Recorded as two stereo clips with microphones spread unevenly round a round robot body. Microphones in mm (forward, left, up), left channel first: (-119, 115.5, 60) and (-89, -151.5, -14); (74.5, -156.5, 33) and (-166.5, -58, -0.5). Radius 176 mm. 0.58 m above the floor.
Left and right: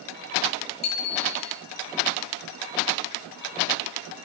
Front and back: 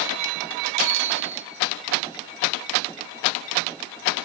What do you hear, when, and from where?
0.8 s a bicycle bell: 120° left, 9 m